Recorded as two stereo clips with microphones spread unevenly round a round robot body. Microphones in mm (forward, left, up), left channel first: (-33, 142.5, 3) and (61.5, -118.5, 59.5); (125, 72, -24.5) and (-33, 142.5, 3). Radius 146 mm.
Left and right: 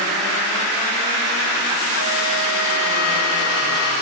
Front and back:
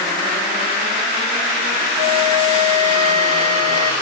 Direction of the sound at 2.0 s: 120° left.